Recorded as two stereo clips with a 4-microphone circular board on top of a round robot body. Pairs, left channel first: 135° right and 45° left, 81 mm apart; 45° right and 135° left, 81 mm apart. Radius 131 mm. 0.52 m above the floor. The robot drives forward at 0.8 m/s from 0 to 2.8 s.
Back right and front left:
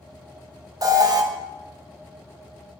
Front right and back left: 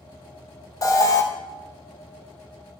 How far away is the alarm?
About 1.4 m.